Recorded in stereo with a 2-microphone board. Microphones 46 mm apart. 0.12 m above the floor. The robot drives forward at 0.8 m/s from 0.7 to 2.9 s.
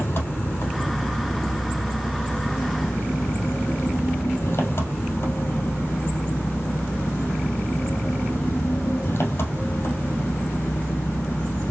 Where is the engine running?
55° left (ahead or behind), 2.5 m; by 11.7 s 65° left (ahead or behind), 2.5 m.